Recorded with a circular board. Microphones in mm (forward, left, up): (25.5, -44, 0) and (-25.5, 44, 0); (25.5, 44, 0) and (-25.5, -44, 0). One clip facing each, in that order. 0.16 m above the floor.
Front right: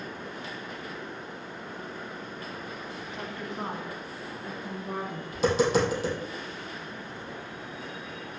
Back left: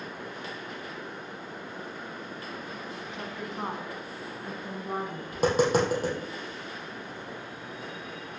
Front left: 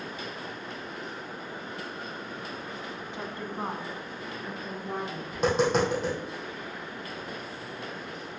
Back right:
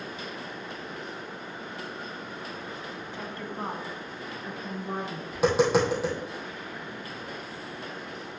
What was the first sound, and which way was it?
A woman speaking, 25° left.